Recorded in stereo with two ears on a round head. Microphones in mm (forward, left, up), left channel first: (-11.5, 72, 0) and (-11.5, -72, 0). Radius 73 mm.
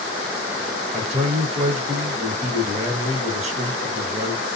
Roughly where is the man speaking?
Right.